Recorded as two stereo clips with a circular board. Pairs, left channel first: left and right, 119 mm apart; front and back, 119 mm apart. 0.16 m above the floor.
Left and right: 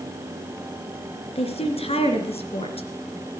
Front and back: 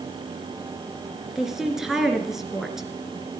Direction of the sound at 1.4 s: 95° left.